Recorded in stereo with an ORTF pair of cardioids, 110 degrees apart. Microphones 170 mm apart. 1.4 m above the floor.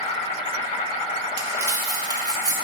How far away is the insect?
About 1.8 m.